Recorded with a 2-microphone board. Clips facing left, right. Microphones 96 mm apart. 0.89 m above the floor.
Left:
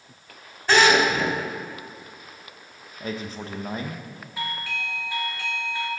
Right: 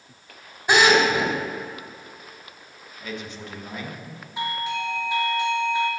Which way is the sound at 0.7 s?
15° right (ahead or behind).